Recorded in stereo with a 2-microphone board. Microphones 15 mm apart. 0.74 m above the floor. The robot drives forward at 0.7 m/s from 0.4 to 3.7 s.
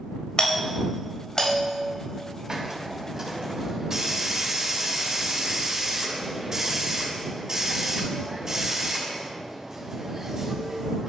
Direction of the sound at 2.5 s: 30° right (ahead or behind).